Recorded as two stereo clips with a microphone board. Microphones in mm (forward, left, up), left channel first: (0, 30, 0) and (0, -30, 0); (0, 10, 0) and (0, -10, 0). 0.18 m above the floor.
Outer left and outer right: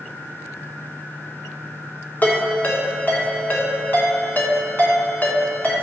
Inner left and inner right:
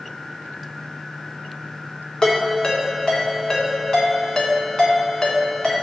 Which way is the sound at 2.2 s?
30° left (ahead or behind).